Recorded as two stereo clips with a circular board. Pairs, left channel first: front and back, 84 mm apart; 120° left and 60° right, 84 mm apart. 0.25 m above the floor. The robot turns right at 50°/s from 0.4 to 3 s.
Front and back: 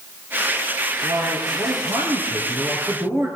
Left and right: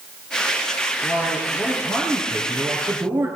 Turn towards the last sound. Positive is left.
turn(degrees=-120)